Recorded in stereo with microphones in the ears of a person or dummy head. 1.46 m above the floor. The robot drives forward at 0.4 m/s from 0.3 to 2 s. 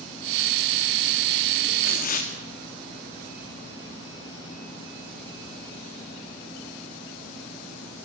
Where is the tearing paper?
50° left (ahead or behind), 2.5 m.